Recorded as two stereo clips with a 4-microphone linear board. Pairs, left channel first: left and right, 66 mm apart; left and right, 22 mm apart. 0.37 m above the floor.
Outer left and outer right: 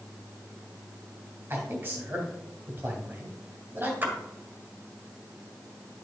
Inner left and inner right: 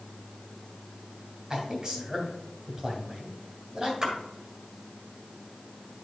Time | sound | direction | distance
1.5 | a man speaking | 35° right (ahead or behind) | 2.5 m
4.0 | a splash | 35° right (ahead or behind) | 1.9 m